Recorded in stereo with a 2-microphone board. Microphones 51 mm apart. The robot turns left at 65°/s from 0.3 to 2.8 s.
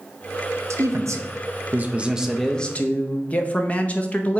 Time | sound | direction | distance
0.7 | a man speaking | 70° right | 0.8 m